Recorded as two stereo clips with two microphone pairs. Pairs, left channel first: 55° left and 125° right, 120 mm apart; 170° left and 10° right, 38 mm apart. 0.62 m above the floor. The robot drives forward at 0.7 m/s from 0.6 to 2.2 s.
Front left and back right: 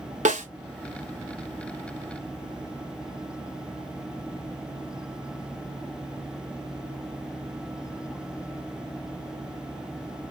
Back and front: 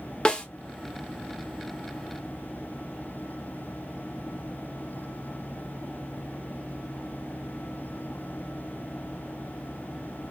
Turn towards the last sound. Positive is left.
turn(degrees=-165)